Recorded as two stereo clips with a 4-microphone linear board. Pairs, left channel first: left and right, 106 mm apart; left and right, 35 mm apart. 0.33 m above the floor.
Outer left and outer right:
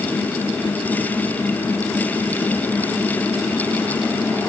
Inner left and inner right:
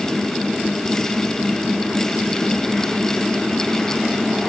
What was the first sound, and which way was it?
Only background noise.